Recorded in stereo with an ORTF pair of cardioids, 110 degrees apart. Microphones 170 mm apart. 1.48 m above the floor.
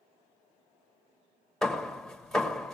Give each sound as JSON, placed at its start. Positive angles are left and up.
{"t": 1.6, "sound": "hammering", "azimuth_deg": 0, "distance_m": 1.3}